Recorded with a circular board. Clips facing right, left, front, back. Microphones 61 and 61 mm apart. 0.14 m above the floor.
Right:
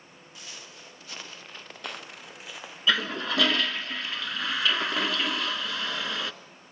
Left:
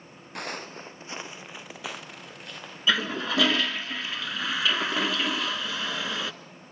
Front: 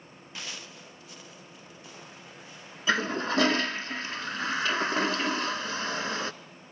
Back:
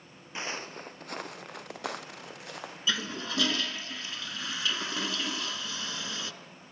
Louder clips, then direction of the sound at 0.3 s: Left 12 dB, back 6 dB; 115° left.